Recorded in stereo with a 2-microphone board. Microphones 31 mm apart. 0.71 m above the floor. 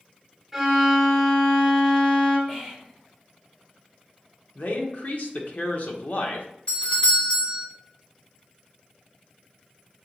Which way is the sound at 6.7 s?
35° left (ahead or behind).